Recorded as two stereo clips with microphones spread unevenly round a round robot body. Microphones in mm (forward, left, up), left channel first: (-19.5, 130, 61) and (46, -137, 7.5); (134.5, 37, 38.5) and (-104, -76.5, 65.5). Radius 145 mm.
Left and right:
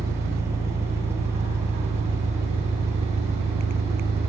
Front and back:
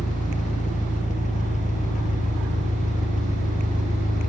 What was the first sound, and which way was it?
An engine running, 15° right.